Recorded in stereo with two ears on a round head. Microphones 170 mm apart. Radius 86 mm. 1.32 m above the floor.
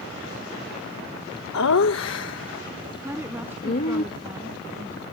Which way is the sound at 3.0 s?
10° right (ahead or behind).